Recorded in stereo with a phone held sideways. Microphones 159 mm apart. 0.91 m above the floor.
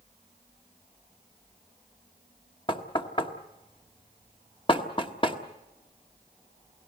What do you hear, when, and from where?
2.7 s knocking: 35° left (ahead or behind), 1.3 m